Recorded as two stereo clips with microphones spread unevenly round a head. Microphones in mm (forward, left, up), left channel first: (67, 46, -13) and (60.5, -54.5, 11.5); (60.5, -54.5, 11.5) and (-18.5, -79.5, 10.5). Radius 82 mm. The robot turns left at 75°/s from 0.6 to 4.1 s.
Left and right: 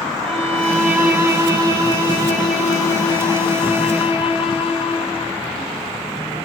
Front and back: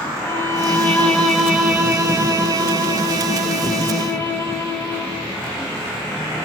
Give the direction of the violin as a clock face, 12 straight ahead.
1 o'clock.